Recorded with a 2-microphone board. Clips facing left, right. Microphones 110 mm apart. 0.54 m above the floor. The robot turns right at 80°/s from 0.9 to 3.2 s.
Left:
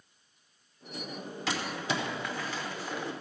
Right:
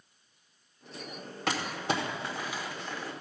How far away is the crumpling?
About 1.3 m.